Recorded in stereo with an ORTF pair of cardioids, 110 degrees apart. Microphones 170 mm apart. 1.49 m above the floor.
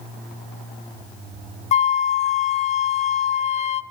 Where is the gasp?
No gasp in this recording.